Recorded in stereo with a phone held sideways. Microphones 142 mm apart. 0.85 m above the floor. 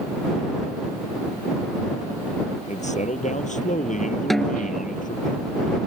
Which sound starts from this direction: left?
A man speaking, at 2.7 s.